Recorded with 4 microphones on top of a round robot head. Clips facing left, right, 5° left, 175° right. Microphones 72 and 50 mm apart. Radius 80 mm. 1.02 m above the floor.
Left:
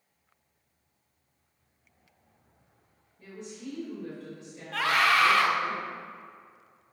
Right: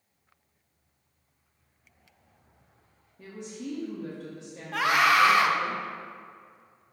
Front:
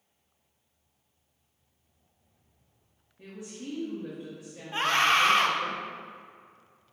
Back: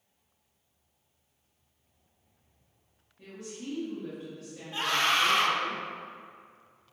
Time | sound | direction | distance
3.2 | a woman speaking | 75° right | 2 m
4.7 | a scream | 25° right | 1.0 m